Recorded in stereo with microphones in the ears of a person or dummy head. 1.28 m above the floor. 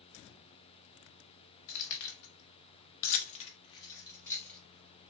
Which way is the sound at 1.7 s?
65° left (ahead or behind).